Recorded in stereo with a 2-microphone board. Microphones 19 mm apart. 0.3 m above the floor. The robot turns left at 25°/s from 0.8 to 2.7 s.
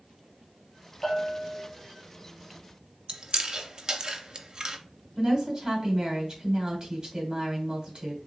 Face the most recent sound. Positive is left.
turn(degrees=-50)  # may be behind; listen again after turning